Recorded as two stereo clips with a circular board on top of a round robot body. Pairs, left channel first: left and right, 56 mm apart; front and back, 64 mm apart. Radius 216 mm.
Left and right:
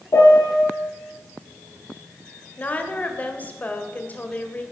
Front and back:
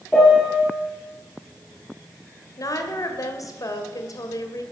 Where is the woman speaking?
30° left, 2.5 m.